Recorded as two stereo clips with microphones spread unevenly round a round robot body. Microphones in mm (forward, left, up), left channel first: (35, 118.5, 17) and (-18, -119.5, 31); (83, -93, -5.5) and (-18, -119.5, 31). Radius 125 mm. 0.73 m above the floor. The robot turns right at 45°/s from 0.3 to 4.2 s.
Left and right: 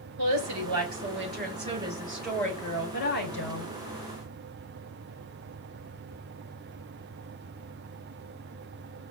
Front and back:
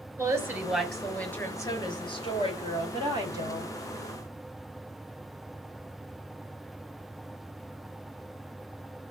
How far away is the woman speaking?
About 4.5 m.